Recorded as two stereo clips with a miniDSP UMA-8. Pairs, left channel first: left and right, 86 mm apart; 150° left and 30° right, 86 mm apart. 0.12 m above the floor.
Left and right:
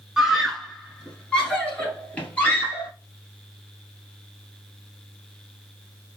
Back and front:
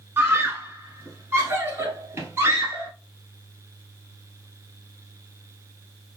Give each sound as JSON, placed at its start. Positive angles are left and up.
{"t": 0.2, "sound": "a scream", "azimuth_deg": -10, "distance_m": 1.2}